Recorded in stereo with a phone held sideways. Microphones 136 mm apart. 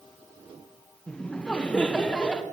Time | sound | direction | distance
1.1 | laughter | 5° left (ahead or behind) | 1.1 m